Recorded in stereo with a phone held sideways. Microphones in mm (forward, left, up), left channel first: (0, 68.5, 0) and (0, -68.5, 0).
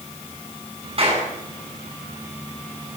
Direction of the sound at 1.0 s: 45° right (ahead or behind).